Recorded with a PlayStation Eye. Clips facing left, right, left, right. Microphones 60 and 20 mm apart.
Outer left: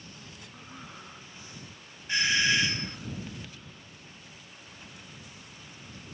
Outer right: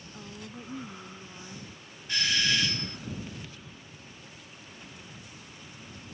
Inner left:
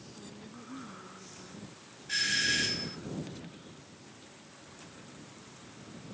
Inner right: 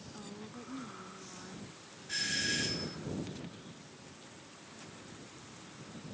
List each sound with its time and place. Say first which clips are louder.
0.1 s a woman speaking: outer right 5 dB, inner right 3 dB; 30° right (ahead or behind); by 1.7 s 25° right (ahead or behind)
2.1 s a doorbell: outer left 3 dB, inner left 5 dB; 20° left (ahead or behind)